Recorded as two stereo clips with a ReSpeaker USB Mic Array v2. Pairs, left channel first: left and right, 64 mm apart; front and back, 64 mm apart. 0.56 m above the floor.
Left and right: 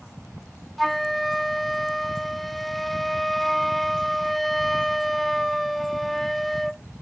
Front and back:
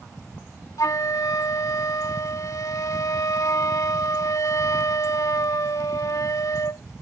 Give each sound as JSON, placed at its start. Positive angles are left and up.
{"t": 0.8, "sound": "a flute", "azimuth_deg": 0}